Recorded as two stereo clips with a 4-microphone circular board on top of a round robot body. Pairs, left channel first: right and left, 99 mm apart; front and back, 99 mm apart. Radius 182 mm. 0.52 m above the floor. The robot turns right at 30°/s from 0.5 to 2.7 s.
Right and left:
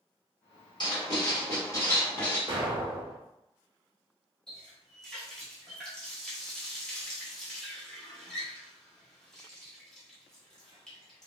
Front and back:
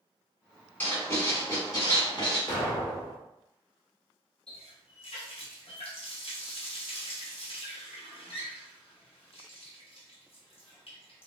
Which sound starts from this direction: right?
Writing, at 0.8 s.